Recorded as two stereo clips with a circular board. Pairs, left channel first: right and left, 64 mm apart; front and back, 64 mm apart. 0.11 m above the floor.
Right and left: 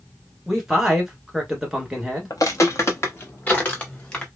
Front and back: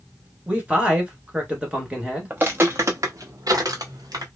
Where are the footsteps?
115° right, 0.9 m; by 4.3 s 160° right, 1.5 m.